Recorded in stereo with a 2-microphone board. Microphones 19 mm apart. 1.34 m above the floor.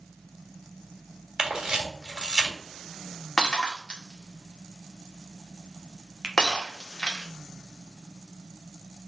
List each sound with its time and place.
1.4 s a camera shutter: 35° right (ahead or behind), 2 m
3.4 s breaking glass: 50° left (ahead or behind), 1.6 m
6.2 s a finger snap: 15° right (ahead or behind), 0.9 m